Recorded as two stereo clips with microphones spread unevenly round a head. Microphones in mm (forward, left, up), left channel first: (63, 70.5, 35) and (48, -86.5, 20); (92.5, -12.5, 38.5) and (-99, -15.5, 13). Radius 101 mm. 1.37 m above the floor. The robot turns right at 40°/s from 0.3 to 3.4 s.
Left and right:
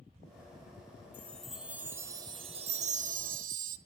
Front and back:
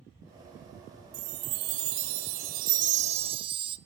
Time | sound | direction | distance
1.1 | a chime | 155° left | 0.7 m